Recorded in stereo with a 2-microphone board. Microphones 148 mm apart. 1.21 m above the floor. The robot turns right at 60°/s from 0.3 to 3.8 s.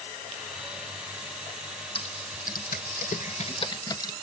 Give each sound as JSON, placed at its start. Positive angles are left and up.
{"t": 1.9, "sound": "typing on a keyboard", "side_deg": 40, "distance_m": 0.8}